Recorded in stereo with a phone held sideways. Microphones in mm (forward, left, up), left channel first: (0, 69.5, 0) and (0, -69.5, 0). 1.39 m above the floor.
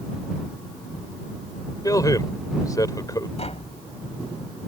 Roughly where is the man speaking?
Left.